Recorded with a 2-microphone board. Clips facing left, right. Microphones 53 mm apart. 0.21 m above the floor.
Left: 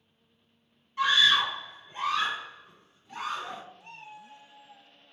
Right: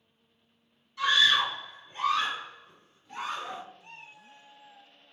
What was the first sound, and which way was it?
A scream, 35° left (ahead or behind).